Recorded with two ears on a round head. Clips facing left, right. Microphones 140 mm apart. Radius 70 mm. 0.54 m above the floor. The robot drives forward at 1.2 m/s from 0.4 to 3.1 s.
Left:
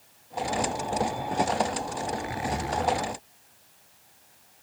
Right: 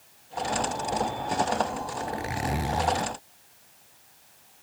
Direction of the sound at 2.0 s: 35° right (ahead or behind).